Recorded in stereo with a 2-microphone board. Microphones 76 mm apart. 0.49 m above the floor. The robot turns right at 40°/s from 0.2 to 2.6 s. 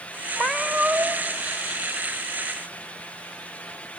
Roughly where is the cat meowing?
Behind.